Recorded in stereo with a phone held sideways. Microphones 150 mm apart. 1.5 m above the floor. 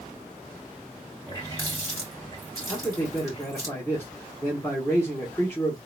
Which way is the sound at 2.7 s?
15° left (ahead or behind).